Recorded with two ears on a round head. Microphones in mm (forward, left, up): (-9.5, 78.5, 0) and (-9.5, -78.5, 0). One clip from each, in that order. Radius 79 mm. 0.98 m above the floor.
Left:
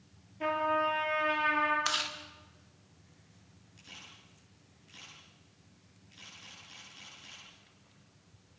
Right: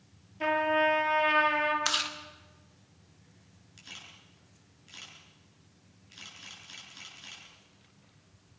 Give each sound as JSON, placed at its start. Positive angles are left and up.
{"t": 0.4, "sound": "a trumpet", "side_deg": -40, "distance_m": 5.0}
{"t": 1.9, "sound": "chewing", "side_deg": -10, "distance_m": 1.3}
{"t": 3.8, "sound": "a camera shutter", "side_deg": -40, "distance_m": 9.0}